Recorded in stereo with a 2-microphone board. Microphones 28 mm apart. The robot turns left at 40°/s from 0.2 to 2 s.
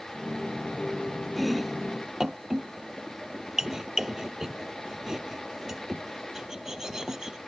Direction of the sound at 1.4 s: 5° left (ahead or behind).